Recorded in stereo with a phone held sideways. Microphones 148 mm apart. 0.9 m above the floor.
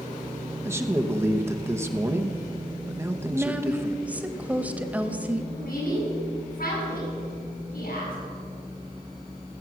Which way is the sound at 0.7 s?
15° right (ahead or behind).